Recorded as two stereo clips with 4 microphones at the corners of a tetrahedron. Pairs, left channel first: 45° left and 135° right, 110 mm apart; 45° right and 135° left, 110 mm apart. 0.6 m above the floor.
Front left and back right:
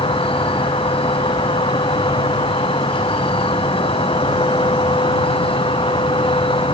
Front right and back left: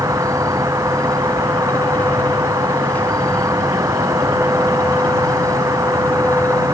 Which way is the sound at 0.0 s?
75° left.